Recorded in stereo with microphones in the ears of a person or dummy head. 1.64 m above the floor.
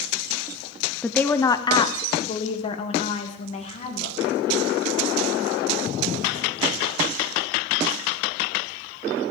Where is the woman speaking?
Centre (ahead or behind), 0.6 m; by 4.4 s 45° left (ahead or behind), 2.5 m.